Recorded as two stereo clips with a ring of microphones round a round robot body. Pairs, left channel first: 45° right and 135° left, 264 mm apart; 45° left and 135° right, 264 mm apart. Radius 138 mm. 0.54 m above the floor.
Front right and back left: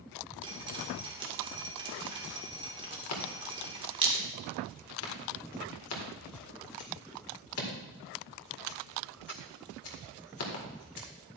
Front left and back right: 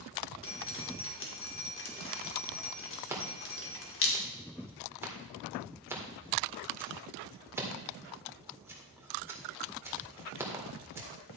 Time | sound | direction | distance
0.4 | dripping | 70° left | 2.0 m
3.1 | scissors | 55° right | 2 m